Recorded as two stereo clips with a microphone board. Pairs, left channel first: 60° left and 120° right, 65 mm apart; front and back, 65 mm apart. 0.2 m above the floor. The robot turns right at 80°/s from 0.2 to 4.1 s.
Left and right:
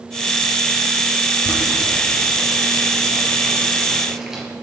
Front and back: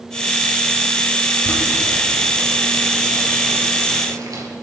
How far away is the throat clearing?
I don't hear throat clearing.